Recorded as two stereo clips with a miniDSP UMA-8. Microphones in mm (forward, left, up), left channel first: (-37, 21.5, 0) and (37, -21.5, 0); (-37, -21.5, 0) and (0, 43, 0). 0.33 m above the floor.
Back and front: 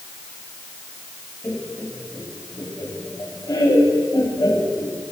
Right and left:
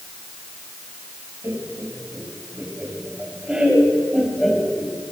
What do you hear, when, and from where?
1.4 s laughter: 100° left, 3 m; by 5.0 s 165° left, 2.5 m